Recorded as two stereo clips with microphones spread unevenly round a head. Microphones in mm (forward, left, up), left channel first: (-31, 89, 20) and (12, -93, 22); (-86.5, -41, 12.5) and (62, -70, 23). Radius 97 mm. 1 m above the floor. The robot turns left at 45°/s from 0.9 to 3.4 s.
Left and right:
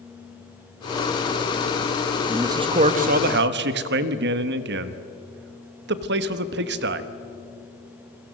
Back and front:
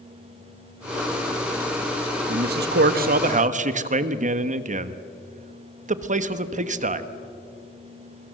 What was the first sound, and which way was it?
A man speaking, 5° left.